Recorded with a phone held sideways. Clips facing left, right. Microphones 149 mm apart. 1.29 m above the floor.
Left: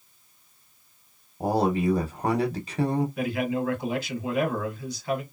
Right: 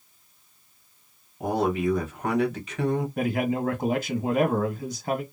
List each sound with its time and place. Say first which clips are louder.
1.4 s a man speaking: left 1 dB; 35° left (ahead or behind), 0.9 m
3.2 s a man speaking: right 1 dB; 50° right (ahead or behind), 1.1 m